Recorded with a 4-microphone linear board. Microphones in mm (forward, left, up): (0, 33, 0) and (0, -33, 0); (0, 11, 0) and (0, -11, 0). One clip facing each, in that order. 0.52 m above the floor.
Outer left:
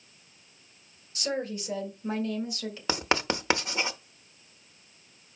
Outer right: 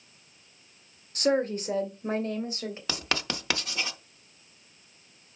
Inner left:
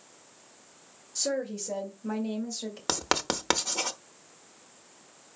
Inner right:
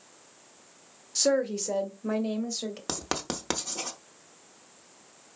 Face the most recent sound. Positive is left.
turn(degrees=25)  # may be behind; listen again after turning